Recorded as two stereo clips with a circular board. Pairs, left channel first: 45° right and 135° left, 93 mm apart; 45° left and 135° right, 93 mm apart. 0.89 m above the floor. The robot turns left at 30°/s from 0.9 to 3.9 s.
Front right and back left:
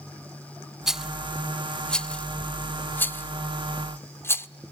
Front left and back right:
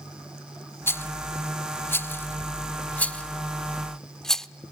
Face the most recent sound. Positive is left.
turn(degrees=-35)